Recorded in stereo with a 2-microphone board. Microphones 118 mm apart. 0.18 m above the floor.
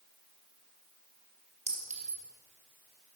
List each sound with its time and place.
1.7 s a clink: 65° right (ahead or behind), 2.5 m